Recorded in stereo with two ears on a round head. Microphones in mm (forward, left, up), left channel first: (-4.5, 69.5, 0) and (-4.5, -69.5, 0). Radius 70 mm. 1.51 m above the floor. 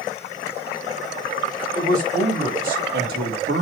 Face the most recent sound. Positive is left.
turn(degrees=-75)  # may be behind; listen again after turning